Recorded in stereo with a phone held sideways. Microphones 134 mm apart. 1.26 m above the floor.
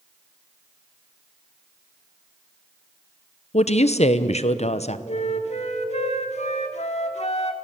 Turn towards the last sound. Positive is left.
turn(degrees=55)  # may be behind; listen again after turning